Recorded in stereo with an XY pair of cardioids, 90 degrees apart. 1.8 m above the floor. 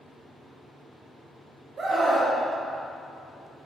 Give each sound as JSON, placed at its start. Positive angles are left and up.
{"t": 1.8, "sound": "a scream", "azimuth_deg": -45, "distance_m": 0.9}